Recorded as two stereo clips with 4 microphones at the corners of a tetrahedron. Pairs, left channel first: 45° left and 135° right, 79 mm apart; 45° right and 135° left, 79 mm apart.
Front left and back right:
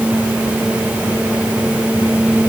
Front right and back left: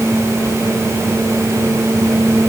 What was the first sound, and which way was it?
Only background noise.